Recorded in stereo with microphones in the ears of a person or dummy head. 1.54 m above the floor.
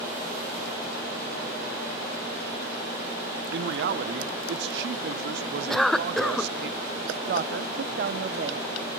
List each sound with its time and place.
3.5 s a man speaking: 65° right (ahead or behind), 0.8 m
5.7 s a cough: 5° left (ahead or behind), 0.5 m
7.3 s a woman speaking: 55° right (ahead or behind), 0.8 m